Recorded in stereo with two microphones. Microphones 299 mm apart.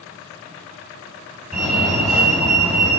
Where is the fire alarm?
5° right (ahead or behind), 3 m.